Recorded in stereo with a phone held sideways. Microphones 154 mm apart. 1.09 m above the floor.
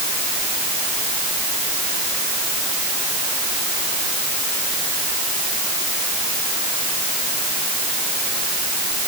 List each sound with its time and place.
Only background noise.